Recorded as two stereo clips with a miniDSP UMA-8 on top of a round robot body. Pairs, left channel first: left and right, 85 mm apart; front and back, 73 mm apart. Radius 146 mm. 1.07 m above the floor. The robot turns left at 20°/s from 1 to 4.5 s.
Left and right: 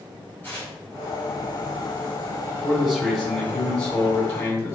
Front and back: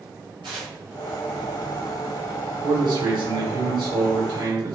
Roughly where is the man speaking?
Behind.